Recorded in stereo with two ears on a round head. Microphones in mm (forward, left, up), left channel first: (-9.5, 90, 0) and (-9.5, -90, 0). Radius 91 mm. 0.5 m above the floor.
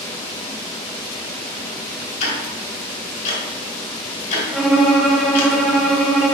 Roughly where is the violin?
Centre.